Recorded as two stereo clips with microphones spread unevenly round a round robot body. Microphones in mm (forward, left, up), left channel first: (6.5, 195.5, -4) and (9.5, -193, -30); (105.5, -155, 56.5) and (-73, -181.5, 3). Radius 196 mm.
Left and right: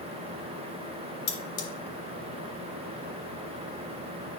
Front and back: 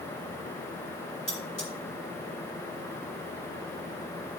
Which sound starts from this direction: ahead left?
Cutlery clinking, at 1.3 s.